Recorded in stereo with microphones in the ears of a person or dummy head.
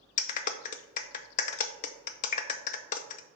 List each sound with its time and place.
0.2 s a clap: 50° left (ahead or behind), 0.5 m